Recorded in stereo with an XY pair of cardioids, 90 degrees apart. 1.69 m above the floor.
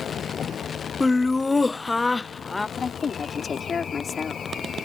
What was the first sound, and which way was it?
A vehicle, 60° left.